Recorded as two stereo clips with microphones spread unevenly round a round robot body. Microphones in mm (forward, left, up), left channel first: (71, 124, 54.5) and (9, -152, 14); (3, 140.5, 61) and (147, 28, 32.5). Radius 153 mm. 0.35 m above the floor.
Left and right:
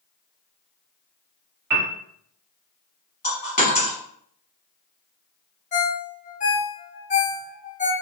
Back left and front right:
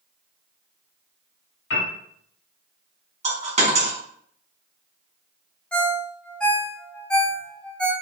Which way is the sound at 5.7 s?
40° left.